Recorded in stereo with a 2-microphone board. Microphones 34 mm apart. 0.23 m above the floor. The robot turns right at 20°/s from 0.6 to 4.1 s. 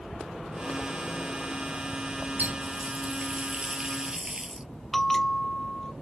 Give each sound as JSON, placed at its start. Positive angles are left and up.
{"t": 2.4, "sound": "a running tap", "azimuth_deg": -55}
{"t": 4.9, "sound": "a bell", "side_deg": 15}